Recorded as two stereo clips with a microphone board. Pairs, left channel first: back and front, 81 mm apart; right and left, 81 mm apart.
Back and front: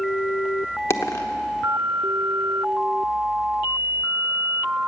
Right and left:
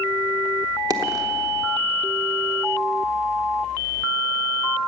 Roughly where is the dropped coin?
Behind left.